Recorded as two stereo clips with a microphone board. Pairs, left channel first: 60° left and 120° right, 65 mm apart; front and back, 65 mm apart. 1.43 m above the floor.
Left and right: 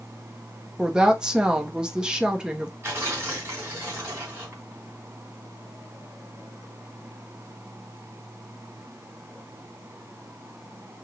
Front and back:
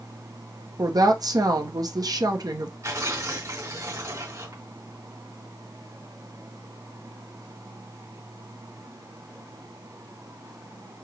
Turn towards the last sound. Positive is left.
turn(degrees=-170)